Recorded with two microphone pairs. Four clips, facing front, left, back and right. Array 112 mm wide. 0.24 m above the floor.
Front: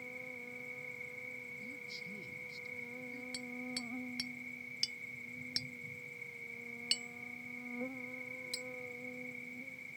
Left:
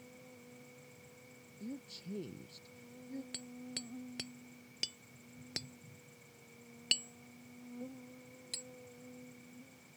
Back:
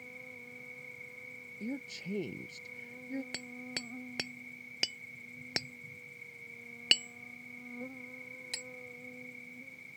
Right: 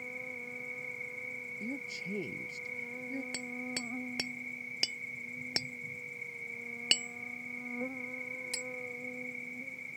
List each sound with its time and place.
0.0 s an insect: 80° right
1.6 s a woman speaking: 155° right
3.3 s hammering: 145° right